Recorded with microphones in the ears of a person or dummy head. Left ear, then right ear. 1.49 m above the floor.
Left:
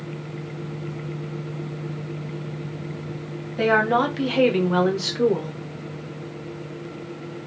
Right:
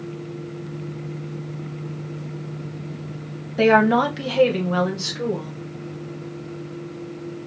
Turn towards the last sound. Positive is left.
turn(degrees=40)  # may be behind; listen again after turning